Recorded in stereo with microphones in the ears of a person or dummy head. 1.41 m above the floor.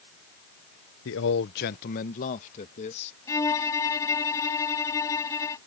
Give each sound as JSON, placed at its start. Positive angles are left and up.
{"t": 1.1, "sound": "a man speaking", "side_deg": 70}
{"t": 3.3, "sound": "a violin", "side_deg": 15}